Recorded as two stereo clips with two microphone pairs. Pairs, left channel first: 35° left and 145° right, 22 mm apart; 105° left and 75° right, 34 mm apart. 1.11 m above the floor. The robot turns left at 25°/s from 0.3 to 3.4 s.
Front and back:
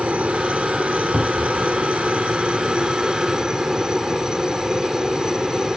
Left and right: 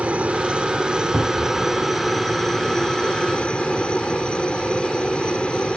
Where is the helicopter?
120° right; by 5.8 s 160° left.